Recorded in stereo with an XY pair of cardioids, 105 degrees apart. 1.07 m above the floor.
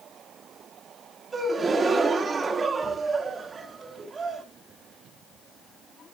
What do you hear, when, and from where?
1.3 s a gasp: 30° right, 1.6 m